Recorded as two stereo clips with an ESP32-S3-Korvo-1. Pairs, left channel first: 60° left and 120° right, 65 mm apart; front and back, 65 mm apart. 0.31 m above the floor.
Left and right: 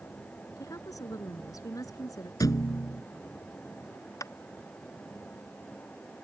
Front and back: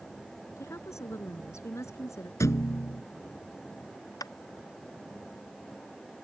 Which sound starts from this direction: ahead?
Tapping, at 4.2 s.